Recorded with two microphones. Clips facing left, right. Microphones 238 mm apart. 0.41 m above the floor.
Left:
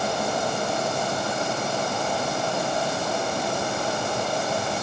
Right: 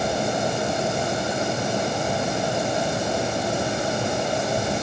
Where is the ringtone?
No ringtone in this recording.